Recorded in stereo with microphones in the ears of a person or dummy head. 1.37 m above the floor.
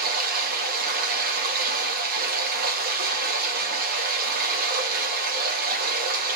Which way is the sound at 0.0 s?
50° right (ahead or behind).